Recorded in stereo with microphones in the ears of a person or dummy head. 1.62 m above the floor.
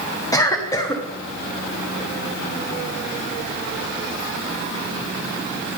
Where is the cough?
25° left (ahead or behind), 0.9 m.